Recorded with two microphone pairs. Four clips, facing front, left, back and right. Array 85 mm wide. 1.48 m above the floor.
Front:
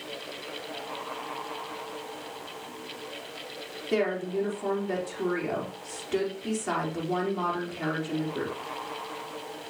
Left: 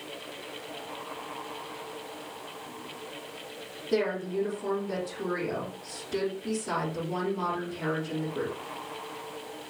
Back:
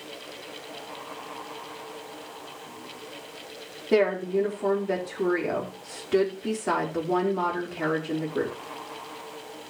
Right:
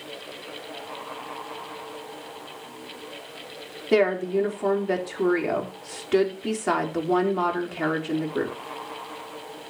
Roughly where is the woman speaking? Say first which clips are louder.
Right 7 dB, back 5 dB; right.